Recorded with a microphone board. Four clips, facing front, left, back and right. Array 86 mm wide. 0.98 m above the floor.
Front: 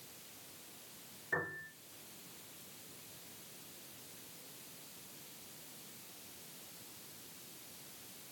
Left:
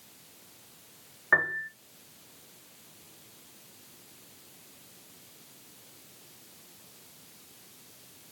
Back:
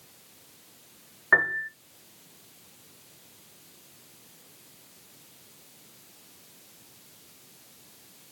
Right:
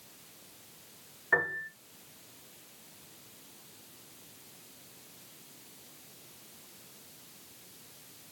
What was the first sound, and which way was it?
A piano, 155° left.